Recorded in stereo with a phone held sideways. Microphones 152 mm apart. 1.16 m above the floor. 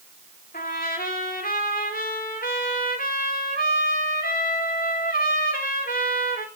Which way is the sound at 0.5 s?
60° left (ahead or behind).